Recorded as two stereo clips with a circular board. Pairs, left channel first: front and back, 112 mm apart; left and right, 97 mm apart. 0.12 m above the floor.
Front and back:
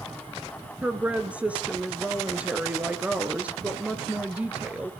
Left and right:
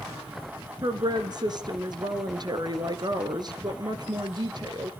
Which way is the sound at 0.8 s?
105° right.